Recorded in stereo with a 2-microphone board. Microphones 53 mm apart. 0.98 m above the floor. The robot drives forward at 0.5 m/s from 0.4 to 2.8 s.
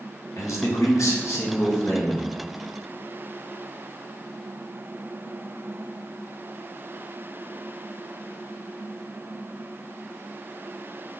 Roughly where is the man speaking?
Left.